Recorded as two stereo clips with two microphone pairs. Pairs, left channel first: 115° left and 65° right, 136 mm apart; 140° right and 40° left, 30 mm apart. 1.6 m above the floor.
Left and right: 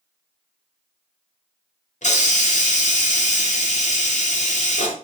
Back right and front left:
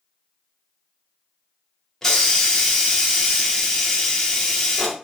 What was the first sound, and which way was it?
A hiss, 145° left.